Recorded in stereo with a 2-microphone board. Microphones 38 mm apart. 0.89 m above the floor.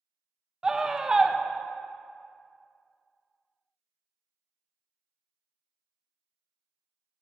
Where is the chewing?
I don't hear chewing.